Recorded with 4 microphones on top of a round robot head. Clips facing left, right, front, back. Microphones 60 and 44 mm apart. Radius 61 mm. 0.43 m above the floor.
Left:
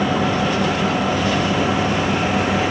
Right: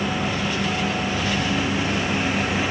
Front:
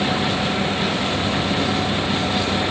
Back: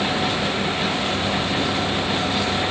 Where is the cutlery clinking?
No cutlery clinking in this recording.